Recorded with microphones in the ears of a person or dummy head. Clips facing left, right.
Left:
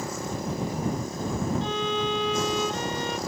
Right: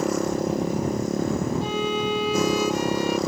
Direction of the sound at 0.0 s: 55° right (ahead or behind).